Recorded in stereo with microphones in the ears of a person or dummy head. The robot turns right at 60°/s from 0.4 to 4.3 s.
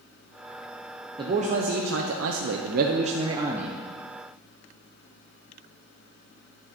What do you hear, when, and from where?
1.2 s a man speaking: 155° right, 0.8 m; by 3.8 s 5° left, 0.8 m